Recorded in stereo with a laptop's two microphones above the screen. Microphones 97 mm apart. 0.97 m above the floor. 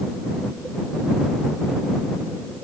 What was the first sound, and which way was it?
Only background noise.